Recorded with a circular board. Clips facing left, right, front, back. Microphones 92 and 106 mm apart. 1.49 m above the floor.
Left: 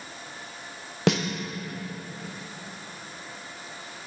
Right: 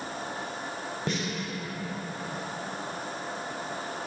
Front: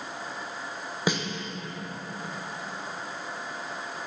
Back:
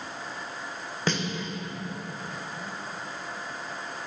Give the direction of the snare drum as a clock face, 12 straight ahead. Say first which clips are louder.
Left 9 dB, front 1 dB; 9 o'clock.